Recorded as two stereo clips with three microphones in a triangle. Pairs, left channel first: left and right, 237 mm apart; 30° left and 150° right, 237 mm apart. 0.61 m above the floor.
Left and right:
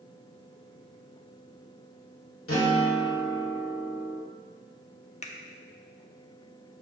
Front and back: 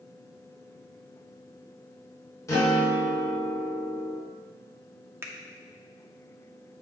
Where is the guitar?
105° left, 1.8 m.